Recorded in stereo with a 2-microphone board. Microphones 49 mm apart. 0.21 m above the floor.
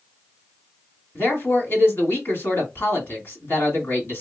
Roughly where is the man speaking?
Left.